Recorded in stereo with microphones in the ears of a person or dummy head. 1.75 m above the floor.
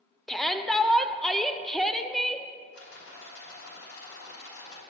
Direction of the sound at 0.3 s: Centre (ahead or behind).